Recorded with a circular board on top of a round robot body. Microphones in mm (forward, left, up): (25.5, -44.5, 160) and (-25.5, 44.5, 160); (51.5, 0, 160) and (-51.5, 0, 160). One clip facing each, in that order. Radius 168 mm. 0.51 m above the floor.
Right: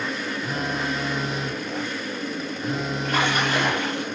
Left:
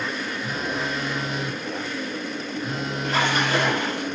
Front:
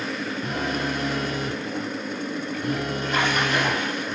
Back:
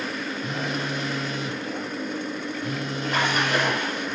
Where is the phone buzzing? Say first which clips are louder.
Right 1 dB, front 3 dB; 30° left, 0.8 m.